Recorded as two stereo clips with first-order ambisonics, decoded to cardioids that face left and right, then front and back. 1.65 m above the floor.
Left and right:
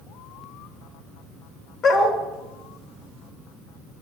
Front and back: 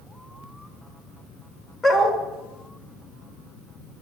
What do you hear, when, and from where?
1.8 s a dog barking: 65° left, 1.6 m